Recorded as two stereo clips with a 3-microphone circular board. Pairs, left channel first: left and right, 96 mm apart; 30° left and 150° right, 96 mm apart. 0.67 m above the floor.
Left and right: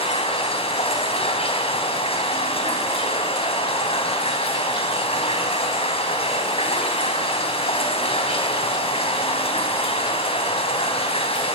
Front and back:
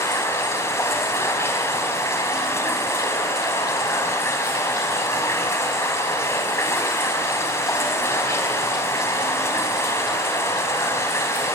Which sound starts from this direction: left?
Running water, at 0.0 s.